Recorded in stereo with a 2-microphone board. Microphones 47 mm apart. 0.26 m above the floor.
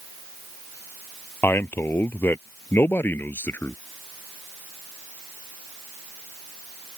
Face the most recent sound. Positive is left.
turn(degrees=50)  # may be behind; listen again after turning